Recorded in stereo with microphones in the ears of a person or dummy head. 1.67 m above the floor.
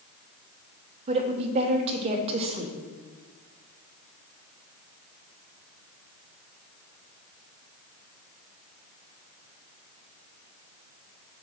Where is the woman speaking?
35° right (ahead or behind), 0.8 m.